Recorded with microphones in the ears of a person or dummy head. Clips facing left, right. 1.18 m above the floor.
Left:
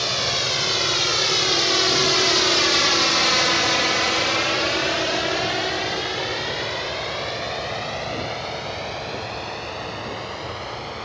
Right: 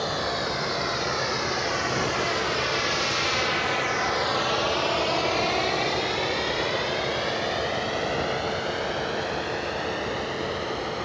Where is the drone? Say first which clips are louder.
Even; 40° left (ahead or behind); by 11.1 s 10° right (ahead or behind).